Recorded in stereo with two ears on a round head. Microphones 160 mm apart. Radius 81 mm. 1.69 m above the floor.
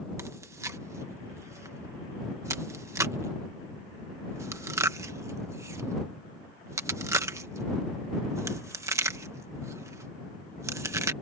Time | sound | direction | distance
0.2 | chewing | 15° right (ahead or behind) | ?